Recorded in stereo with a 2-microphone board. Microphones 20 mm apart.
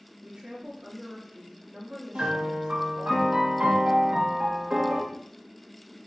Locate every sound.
0.2 s a woman speaking: 65° right (ahead or behind), 1.6 m
2.1 s a piano: 60° right (ahead or behind), 1.3 m